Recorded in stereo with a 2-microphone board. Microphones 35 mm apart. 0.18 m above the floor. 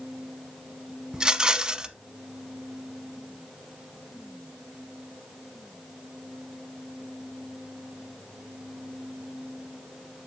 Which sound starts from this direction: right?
A rattle, at 1.1 s.